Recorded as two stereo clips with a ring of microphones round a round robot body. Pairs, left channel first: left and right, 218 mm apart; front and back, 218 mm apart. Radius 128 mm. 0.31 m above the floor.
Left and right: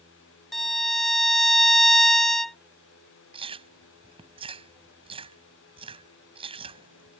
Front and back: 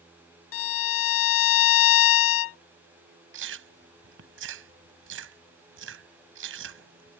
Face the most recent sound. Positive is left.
turn(degrees=-155)